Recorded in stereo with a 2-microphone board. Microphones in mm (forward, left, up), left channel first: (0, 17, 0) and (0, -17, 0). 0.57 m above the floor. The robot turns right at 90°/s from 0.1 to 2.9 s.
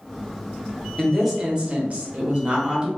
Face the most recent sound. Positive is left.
turn(degrees=-25)